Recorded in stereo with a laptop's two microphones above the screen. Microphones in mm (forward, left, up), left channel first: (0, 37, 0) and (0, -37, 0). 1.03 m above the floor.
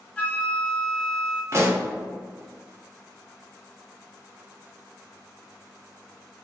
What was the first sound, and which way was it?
A flute, 20° left (ahead or behind).